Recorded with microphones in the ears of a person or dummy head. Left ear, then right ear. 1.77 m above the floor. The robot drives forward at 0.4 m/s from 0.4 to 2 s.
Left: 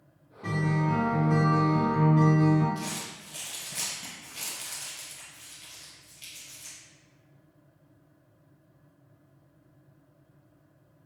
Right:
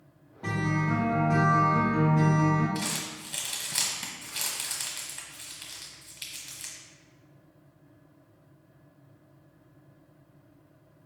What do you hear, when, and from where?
0.4 s a guitar: 10° right (ahead or behind), 0.8 m; by 2.6 s 5° right (ahead or behind), 1.4 m
2.8 s crumpling: 45° right (ahead or behind), 1.1 m